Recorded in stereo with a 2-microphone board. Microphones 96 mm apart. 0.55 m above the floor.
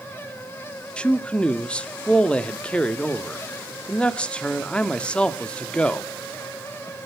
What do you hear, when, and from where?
1.0 s a man speaking: 10° left (ahead or behind), 0.8 m